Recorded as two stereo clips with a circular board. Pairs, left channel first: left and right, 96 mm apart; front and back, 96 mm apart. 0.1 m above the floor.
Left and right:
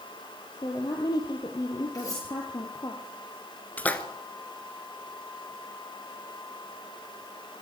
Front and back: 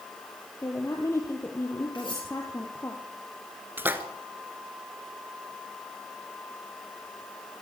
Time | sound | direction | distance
0.6 | a woman speaking | 55° left | 2.5 m
1.9 | cutlery clinking | 35° left | 9.5 m
3.8 | a splash | 140° left | 1.6 m